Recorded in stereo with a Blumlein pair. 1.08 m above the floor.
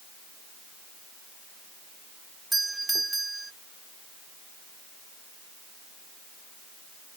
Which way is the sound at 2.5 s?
5° right.